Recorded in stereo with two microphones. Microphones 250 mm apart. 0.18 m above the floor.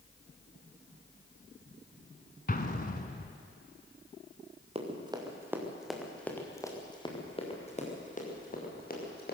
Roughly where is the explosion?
Left.